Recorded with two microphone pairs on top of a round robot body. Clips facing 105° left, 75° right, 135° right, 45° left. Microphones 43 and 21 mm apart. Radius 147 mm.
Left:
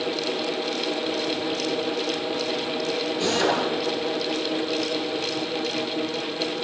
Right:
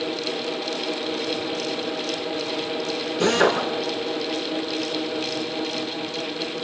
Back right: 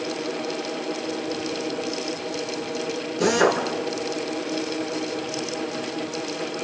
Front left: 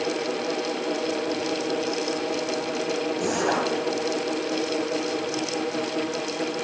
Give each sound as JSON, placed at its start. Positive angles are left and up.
{"t": 3.2, "sound": "a drill", "azimuth_deg": -90, "distance_m": 7.0}